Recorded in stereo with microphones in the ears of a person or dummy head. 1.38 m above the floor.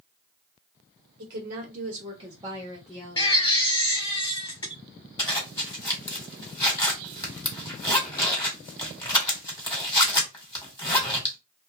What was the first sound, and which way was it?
A woman speaking, 60° right (ahead or behind).